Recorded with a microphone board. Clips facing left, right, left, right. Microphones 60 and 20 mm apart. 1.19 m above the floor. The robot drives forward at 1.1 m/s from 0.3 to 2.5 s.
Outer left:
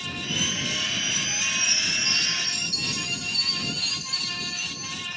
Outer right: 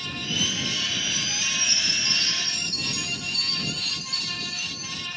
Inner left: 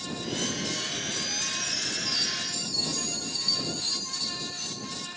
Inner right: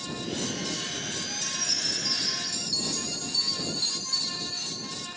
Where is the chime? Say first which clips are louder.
Outer left 1 dB, inner right 1 dB; 50° right (ahead or behind), 7 m; by 4.9 s 45° right (ahead or behind), 7.5 m.